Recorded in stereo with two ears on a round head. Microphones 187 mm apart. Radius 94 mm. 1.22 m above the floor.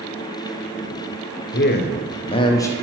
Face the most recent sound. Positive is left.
turn(degrees=15)  # may be behind; listen again after turning